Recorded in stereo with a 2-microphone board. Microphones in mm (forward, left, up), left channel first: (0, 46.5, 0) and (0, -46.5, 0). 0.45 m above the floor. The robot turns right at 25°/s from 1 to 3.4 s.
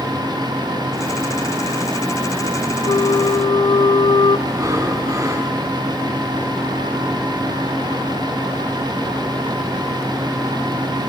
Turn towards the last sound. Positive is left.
turn(degrees=-40)  # may be behind; listen again after turning